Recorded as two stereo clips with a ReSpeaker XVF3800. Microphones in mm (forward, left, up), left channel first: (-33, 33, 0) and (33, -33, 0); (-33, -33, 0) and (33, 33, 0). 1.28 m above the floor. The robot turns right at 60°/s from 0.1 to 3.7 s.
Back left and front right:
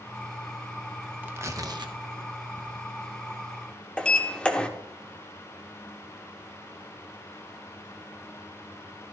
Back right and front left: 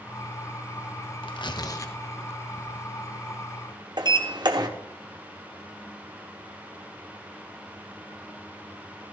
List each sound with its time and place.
1.2 s tearing paper: 115° right, 1.0 m; by 2.9 s 15° right, 1.0 m
4.0 s a sliding door: 60° left, 1.2 m